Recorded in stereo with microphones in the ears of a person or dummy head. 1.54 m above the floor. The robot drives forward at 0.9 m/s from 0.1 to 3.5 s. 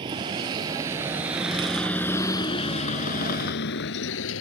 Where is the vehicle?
30° right (ahead or behind); by 4.4 s 70° left (ahead or behind).